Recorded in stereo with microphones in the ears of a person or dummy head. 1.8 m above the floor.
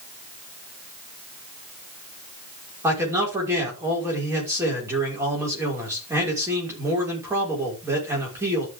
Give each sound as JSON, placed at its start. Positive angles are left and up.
{"t": 2.8, "sound": "a man speaking", "side_deg": -10, "distance_m": 6.0}